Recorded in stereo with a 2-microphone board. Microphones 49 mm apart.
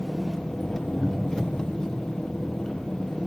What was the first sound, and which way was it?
An engine running, 10° left (ahead or behind).